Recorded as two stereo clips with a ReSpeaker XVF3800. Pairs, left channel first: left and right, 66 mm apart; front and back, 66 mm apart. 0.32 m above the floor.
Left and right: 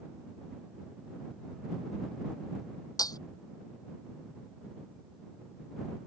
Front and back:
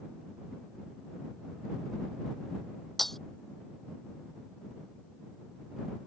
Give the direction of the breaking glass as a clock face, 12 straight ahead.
9 o'clock.